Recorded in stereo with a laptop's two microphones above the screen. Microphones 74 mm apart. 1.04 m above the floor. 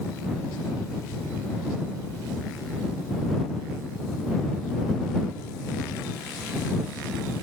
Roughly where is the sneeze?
No sneeze in this recording.